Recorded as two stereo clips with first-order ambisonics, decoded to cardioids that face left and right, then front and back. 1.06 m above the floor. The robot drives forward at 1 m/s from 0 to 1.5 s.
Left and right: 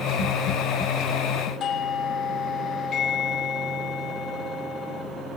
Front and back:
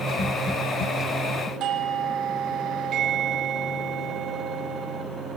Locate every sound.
1.6 s a doorbell: 140° left, 1.0 m